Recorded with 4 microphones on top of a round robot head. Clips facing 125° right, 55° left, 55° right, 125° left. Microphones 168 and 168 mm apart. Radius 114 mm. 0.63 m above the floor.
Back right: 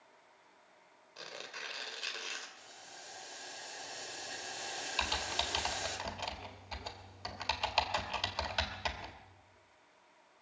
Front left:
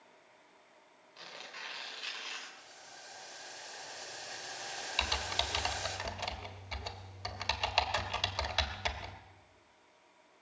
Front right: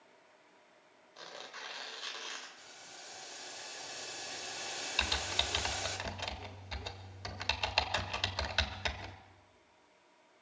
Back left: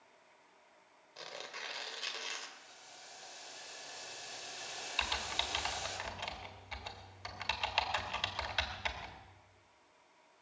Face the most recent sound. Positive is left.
turn(degrees=-30)